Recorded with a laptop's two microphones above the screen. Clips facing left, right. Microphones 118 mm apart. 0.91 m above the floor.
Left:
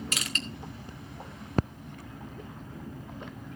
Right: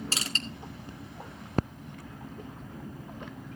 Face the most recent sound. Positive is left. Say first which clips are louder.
# even
turn(degrees=-30)  # may be behind; listen again after turning